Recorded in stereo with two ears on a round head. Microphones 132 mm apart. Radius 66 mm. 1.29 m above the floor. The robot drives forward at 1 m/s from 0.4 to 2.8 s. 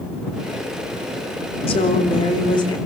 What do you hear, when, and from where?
1.7 s a woman speaking: 40° left (ahead or behind), 3.5 m; by 2.8 s 30° left (ahead or behind), 4.5 m